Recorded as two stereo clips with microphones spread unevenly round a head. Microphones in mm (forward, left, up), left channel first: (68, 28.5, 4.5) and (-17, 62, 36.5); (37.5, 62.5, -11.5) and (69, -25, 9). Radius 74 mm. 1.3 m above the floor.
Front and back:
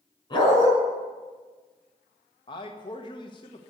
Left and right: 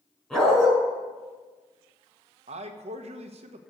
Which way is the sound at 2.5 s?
65° right.